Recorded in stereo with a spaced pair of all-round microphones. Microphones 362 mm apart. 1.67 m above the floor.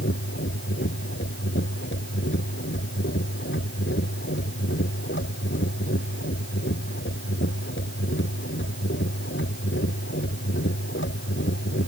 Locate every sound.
0.0 s a machine running: 30° left (ahead or behind)